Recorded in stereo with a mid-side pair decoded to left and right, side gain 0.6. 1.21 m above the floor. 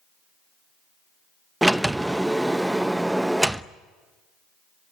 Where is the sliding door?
5° right, 0.8 m.